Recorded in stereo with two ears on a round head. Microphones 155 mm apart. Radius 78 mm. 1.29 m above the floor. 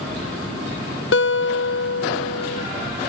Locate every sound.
1.1 s a guitar: 70° left (ahead or behind), 0.5 m